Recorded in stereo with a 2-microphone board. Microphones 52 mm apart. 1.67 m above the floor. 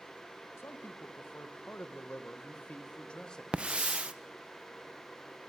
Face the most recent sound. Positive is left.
turn(degrees=-20)  # may be behind; listen again after turning